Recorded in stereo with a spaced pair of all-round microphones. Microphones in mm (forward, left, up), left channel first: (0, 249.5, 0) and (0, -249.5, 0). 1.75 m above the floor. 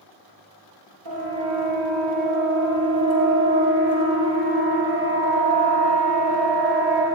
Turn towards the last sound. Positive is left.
turn(degrees=-5)  # may be behind; listen again after turning